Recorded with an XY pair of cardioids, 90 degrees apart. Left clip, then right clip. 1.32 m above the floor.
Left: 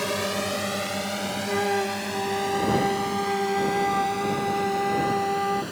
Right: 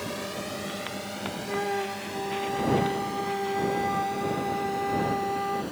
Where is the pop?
I don't hear a pop.